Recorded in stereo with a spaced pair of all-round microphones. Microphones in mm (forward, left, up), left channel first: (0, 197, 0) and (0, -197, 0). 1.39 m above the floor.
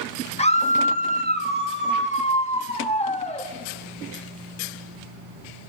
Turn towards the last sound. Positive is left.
turn(degrees=15)  # may be behind; listen again after turning